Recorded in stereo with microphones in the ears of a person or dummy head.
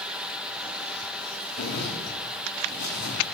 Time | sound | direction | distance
1.6 | a zipper | 55° left (ahead or behind) | 4.5 m